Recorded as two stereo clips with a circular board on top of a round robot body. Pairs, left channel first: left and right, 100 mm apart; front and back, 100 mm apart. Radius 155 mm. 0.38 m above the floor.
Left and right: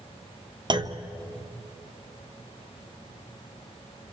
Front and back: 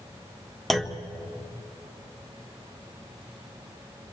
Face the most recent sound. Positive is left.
turn(degrees=-90)